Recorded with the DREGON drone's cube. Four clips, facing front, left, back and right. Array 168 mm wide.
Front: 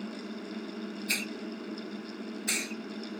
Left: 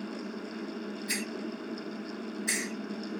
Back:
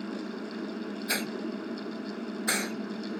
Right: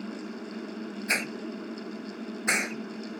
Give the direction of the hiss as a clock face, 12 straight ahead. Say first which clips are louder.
Right 5 dB, back 4 dB; 4 o'clock.